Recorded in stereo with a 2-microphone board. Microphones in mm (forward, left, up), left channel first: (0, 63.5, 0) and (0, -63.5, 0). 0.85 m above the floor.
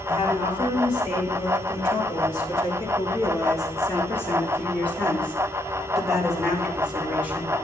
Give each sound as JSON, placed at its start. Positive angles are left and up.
{"t": 0.1, "sound": "a woman speaking", "side_deg": 40, "distance_m": 4.5}